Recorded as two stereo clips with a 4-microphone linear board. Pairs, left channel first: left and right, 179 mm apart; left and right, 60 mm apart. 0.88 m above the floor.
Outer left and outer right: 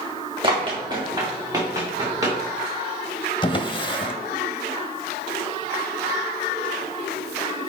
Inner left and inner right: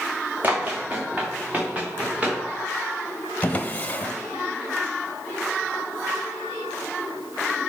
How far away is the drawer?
About 0.9 m.